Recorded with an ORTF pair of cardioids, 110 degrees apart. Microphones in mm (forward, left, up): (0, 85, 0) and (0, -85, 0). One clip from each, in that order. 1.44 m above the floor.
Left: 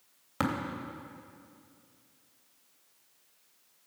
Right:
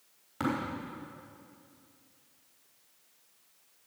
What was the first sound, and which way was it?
Tapping, 60° left.